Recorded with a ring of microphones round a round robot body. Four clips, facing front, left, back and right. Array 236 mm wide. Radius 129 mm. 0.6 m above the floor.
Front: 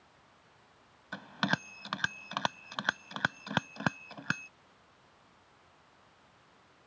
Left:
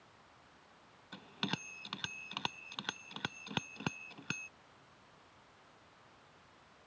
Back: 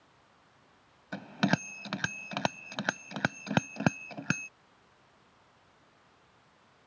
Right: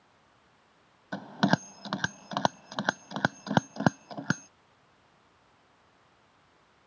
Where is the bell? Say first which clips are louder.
Right 15 dB, back 4 dB; 115° right.